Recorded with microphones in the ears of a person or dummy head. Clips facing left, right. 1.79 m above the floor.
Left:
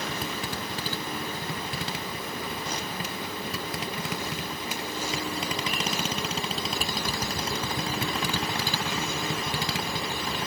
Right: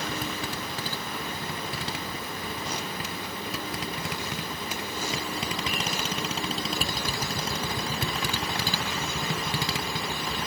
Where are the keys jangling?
I don't hear keys jangling.